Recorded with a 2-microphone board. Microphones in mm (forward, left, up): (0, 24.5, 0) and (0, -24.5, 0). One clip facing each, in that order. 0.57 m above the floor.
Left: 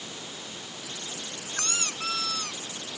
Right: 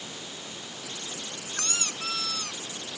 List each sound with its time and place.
1.5 s a squeak: 10° left (ahead or behind)